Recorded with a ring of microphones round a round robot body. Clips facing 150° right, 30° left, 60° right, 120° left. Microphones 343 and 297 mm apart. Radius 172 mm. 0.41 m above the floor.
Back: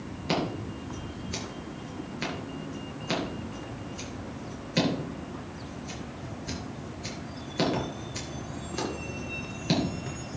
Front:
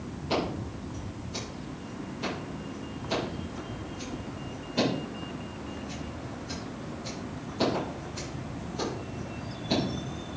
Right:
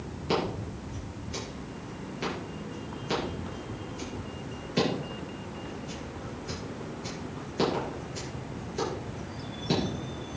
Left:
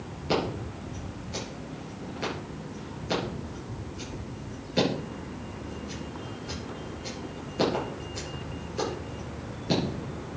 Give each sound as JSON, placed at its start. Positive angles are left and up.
{"t": 0.3, "sound": "scissors", "azimuth_deg": -150, "distance_m": 5.5}